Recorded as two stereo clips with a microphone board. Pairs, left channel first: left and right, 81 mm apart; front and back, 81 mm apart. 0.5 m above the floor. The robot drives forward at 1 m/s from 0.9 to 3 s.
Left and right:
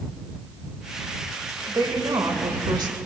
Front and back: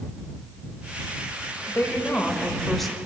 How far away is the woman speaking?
About 2 m.